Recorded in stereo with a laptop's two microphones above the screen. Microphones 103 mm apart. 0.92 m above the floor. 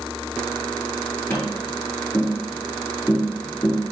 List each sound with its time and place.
1.3 s tapping: 20° left (ahead or behind), 4 m